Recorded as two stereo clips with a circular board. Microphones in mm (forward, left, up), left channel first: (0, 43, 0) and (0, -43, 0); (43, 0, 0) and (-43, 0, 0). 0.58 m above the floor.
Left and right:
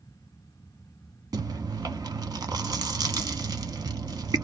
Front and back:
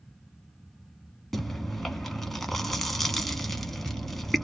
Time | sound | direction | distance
1.3 | chewing | 90° right | 0.6 m